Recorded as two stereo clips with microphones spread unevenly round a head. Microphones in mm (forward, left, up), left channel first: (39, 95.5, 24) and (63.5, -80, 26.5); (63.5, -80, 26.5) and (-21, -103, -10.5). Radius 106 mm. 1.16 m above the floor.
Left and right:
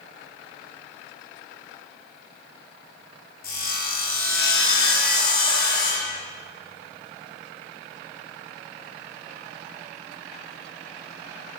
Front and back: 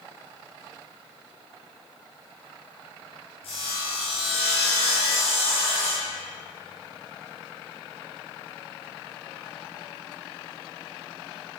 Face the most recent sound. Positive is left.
turn(degrees=65)